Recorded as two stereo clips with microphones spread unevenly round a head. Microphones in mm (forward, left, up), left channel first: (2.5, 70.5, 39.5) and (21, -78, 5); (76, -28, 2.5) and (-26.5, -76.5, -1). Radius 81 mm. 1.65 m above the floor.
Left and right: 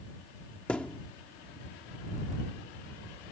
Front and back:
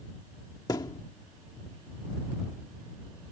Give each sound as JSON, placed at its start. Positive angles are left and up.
{"t": 0.7, "sound": "a thud", "azimuth_deg": 40}